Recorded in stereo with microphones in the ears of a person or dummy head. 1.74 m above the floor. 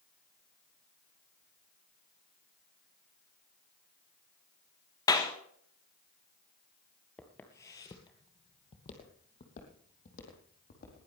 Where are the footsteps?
5° left (ahead or behind), 1.8 m; by 11.1 s 45° left (ahead or behind), 5 m.